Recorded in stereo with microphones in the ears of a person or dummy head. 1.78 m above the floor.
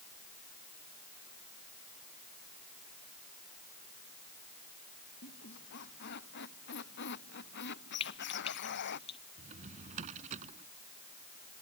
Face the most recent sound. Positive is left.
turn(degrees=-45)  # may be behind; listen again after turning